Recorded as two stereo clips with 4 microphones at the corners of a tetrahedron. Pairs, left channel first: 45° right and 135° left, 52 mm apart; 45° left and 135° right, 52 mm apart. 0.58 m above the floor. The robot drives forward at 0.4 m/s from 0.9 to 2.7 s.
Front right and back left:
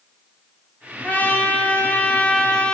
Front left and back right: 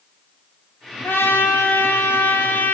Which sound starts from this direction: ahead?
A trumpet, at 1.0 s.